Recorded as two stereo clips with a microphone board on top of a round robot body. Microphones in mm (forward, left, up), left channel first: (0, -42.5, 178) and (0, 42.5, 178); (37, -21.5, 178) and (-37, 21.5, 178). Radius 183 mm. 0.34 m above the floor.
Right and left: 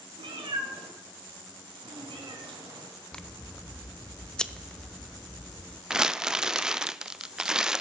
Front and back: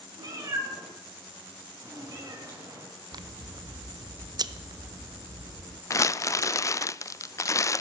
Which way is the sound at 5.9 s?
10° left.